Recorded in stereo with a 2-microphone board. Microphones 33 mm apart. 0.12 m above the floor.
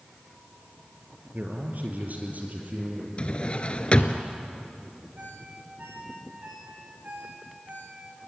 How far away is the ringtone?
About 7.5 m.